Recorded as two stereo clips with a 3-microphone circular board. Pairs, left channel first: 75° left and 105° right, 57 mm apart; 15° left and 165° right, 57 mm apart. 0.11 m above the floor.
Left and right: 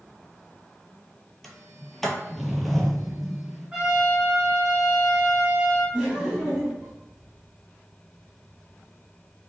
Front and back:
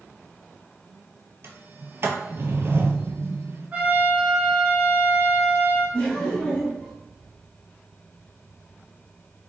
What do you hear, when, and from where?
1.4 s a sliding door: 160° left, 0.5 m
3.7 s a trumpet: 160° right, 1.4 m
5.9 s laughter: 30° right, 1.7 m